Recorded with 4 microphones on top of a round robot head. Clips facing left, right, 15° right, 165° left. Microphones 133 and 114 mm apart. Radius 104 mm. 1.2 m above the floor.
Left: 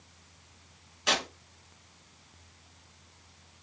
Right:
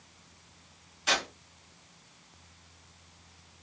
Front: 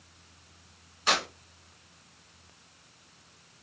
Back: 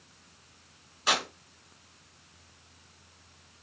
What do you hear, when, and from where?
1.1 s tearing paper: 85° left, 2.0 m